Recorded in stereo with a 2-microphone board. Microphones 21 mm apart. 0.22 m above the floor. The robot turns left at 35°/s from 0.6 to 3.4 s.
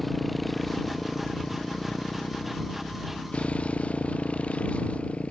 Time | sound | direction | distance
0.0 | a motorcycle | 175° left | ?